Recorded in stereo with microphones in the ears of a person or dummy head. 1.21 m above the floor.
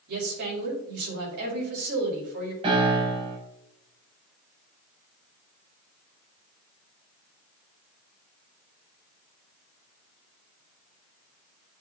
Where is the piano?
25° right (ahead or behind), 6 m.